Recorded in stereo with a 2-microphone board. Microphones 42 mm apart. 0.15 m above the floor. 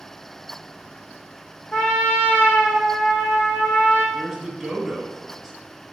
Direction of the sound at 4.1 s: Centre (ahead or behind).